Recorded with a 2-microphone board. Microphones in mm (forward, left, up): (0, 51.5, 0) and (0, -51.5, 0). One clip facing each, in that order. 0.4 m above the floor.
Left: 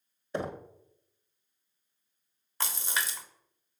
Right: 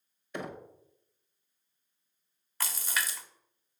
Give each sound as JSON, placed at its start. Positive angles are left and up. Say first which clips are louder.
{"t": 0.3, "sound": "knocking", "louder": "left 5 dB", "side_deg": 35, "distance_m": 1.1}
{"t": 2.6, "sound": "a splash", "louder": "left 1 dB", "side_deg": 25, "distance_m": 1.3}